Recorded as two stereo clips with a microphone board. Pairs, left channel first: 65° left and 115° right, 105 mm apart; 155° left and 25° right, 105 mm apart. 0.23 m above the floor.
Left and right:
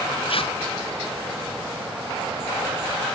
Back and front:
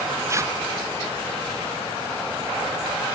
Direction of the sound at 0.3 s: 40° left.